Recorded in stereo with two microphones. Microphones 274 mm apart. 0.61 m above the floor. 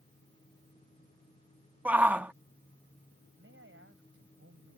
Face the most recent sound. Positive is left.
turn(degrees=-50)  # may be behind; listen again after turning